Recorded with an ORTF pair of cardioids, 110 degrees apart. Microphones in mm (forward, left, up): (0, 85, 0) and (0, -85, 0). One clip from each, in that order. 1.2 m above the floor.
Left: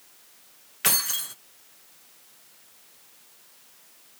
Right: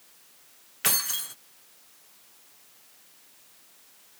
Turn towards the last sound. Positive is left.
turn(degrees=0)